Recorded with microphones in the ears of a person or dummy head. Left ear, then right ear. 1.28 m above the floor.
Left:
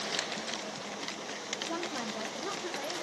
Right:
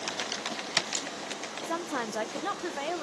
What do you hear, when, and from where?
1.6 s a woman speaking: 30° right (ahead or behind), 0.7 m; by 3.0 s 85° right, 0.8 m